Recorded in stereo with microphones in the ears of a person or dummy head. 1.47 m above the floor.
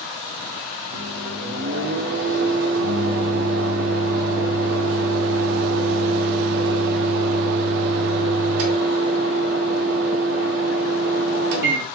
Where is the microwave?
50° right (ahead or behind), 0.6 m.